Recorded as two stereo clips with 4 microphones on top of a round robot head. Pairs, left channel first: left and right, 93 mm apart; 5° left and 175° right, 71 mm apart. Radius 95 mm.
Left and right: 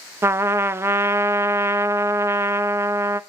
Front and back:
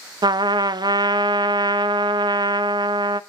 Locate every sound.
0.2 s a trumpet: 155° right, 0.7 m